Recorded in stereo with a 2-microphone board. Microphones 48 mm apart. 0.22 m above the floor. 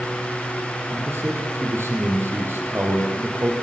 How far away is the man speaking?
About 6.5 m.